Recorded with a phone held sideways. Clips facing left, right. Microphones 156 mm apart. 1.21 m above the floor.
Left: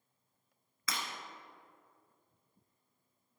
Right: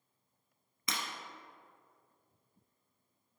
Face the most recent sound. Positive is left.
turn(degrees=-20)  # may be behind; listen again after turning